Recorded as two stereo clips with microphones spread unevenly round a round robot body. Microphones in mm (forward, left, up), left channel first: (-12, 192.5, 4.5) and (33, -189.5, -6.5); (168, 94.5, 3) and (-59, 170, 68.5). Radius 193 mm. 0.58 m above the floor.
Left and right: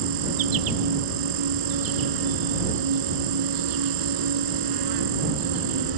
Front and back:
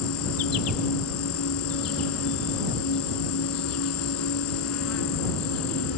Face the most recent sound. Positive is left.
turn(degrees=-45)